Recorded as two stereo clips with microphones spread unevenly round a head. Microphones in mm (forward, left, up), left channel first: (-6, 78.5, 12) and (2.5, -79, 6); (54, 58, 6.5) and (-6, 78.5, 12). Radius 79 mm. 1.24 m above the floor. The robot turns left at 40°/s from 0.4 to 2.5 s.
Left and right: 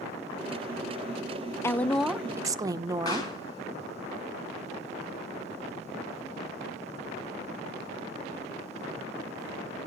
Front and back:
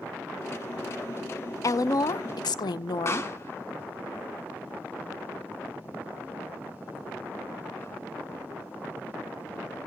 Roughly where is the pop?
Ahead left.